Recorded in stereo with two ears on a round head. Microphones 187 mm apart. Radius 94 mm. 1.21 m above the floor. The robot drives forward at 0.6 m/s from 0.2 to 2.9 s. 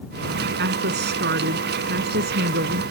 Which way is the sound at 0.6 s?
55° right (ahead or behind).